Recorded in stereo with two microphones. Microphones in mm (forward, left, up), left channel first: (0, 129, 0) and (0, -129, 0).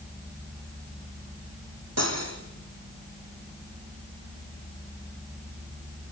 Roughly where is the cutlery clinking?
Right.